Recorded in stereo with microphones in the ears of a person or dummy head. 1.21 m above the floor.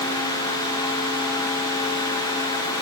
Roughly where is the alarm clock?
I don't hear an alarm clock.